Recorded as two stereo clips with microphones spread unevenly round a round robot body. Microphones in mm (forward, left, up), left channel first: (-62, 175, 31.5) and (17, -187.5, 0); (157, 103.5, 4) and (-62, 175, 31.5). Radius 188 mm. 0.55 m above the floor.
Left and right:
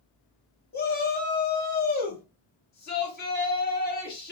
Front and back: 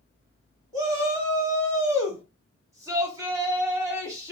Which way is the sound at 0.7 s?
90° left.